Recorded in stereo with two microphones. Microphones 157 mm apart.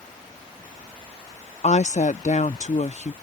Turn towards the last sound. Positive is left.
turn(degrees=50)  # may be behind; listen again after turning